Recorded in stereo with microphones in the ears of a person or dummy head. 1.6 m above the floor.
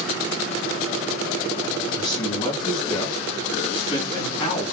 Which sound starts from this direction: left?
A man speaking, at 1.9 s.